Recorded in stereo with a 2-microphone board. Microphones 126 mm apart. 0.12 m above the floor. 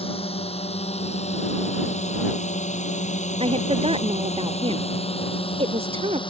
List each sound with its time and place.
0.0 s a drone: 50° left (ahead or behind); by 6.3 s 40° left (ahead or behind)
3.4 s a woman speaking: 50° right (ahead or behind)